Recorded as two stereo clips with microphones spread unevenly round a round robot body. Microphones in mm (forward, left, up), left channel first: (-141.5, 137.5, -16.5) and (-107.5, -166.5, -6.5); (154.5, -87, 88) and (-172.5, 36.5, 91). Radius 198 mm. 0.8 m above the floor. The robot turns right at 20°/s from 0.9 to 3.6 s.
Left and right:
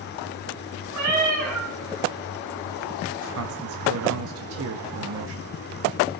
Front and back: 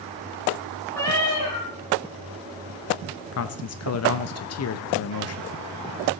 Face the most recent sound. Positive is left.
turn(degrees=-50)